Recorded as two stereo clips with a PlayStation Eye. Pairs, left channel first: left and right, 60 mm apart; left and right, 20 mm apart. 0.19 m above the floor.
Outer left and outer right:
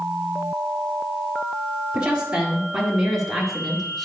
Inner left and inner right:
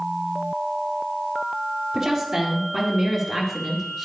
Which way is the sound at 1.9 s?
15° right (ahead or behind).